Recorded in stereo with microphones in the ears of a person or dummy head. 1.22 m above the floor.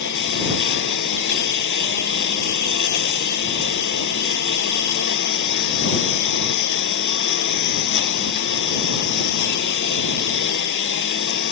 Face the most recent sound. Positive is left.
turn(degrees=60)  # may be behind; listen again after turning